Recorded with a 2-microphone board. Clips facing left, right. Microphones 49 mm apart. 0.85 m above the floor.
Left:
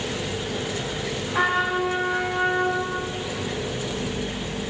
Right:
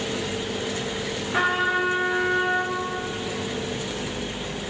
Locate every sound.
1.3 s a trumpet: 55° right (ahead or behind), 1.7 m